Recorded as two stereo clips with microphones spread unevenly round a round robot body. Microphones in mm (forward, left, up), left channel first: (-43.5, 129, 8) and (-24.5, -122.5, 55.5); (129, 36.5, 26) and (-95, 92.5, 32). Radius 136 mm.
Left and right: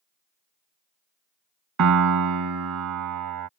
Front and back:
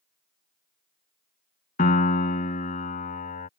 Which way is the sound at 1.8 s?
80° right.